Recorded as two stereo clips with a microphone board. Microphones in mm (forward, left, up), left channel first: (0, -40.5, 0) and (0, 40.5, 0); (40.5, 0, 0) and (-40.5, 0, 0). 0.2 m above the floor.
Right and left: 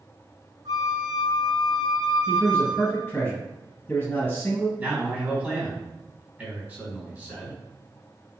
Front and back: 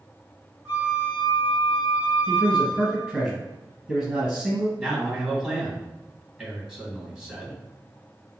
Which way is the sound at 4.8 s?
115° left.